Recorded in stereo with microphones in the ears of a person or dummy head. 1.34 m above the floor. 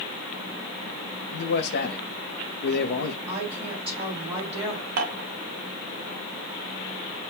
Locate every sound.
1.3 s a man speaking: 55° left (ahead or behind), 0.6 m
3.3 s a woman speaking: 30° right (ahead or behind), 2.5 m
5.0 s dishes clattering: 55° right (ahead or behind), 1.0 m